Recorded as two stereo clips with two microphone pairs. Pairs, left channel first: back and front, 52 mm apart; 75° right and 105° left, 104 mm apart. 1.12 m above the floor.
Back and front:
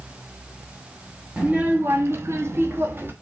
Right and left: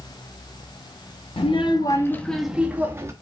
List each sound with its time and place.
1.4 s a child speaking: 60° right, 0.8 m; by 3.1 s 40° left, 1.0 m